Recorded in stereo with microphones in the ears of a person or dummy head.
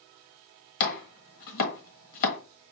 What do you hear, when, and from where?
0.8 s chopping: 45° left (ahead or behind), 1.3 m